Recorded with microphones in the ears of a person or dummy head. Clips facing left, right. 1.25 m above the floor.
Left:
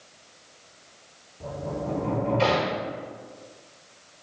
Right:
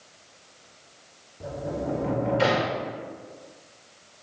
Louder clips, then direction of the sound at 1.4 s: Right 1 dB; 10° right (ahead or behind).